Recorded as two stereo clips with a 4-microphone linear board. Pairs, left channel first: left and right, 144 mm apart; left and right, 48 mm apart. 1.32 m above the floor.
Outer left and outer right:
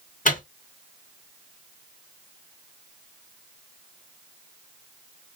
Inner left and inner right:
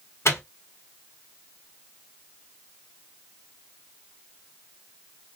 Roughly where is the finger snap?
No finger snap in this recording.